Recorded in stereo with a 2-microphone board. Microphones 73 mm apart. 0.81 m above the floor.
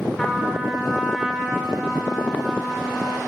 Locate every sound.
0.2 s a trumpet: centre (ahead or behind), 2 m